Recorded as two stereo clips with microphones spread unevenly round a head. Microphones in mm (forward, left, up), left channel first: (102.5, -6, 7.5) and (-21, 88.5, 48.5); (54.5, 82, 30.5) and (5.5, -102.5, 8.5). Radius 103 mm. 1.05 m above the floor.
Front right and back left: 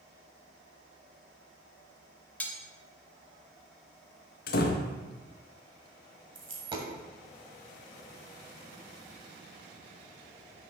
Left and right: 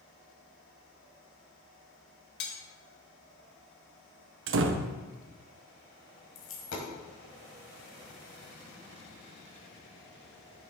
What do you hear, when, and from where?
2.4 s cutlery clinking: 45° left, 1.2 m
4.5 s a door slam: 80° right, 0.6 m
6.3 s a dropped coin: 95° left, 1.7 m